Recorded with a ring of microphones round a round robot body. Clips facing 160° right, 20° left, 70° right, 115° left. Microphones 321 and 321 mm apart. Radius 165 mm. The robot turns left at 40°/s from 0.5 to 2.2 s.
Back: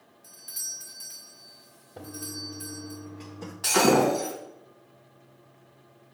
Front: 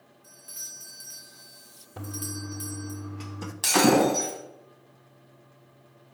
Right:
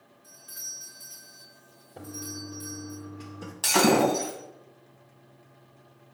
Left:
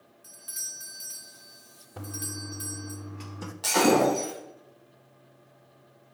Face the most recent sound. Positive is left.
turn(degrees=-10)